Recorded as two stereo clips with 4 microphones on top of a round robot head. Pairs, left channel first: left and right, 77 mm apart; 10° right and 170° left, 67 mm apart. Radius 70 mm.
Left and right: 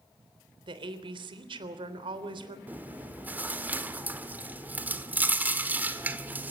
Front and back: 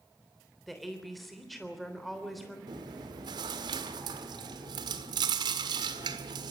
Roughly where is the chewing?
Behind.